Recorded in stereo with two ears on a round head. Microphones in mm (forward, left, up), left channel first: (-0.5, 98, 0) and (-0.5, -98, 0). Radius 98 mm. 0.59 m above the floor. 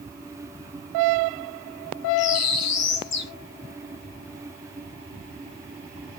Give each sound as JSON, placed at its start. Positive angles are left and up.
{"t": 2.2, "sound": "a bird", "side_deg": 55, "distance_m": 1.3}